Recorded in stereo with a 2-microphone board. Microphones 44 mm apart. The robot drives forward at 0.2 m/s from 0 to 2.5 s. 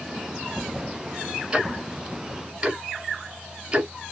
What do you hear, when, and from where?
1.5 s ticking: 20° right (ahead or behind), 1.4 m; by 3.9 s 15° right (ahead or behind), 1.5 m